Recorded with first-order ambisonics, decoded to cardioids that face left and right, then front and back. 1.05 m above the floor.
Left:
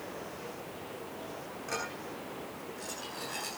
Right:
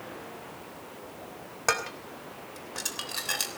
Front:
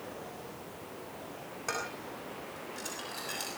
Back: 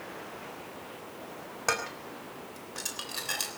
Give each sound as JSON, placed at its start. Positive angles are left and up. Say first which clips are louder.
{"t": 1.7, "sound": "dishes clattering", "louder": "right 9 dB, back 6 dB", "azimuth_deg": -115, "distance_m": 3.5}